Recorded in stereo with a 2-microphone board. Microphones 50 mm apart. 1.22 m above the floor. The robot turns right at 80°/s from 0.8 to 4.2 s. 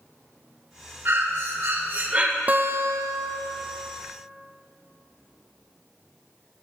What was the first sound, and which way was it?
Breathing, 120° right.